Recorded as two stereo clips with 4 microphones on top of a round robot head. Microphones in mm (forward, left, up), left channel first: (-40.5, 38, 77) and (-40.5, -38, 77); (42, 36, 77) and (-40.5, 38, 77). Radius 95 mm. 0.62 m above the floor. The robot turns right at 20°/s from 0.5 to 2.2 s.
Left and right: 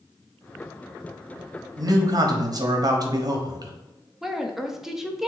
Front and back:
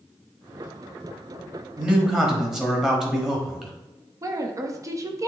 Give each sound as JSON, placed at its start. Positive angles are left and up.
{"t": 1.8, "sound": "a man speaking", "azimuth_deg": -105, "distance_m": 1.1}
{"t": 4.2, "sound": "a woman speaking", "azimuth_deg": -175, "distance_m": 0.8}